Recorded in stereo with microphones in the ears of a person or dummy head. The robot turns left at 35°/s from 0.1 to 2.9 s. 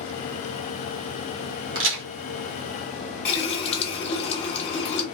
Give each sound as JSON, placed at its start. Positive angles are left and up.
{"t": 1.8, "sound": "a crack", "side_deg": -65, "distance_m": 1.1}
{"t": 3.2, "sound": "a running tap", "side_deg": 30, "distance_m": 0.9}